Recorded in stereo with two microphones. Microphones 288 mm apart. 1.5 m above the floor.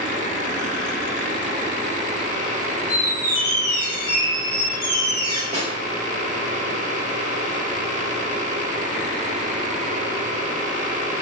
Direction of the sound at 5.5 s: 25° right (ahead or behind).